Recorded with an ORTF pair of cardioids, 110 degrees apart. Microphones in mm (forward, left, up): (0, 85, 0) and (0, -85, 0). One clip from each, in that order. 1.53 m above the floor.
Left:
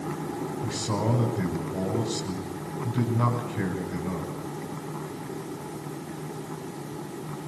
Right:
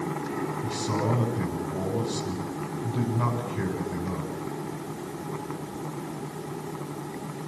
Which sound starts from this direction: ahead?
A man speaking, at 0.6 s.